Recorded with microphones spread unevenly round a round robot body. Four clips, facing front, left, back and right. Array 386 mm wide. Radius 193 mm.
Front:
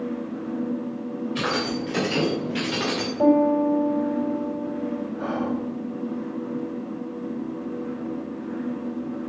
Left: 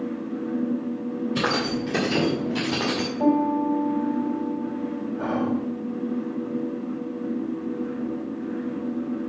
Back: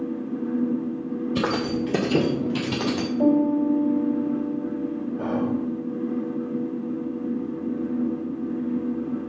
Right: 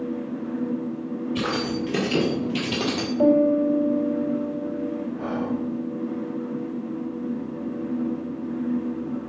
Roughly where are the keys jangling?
Behind.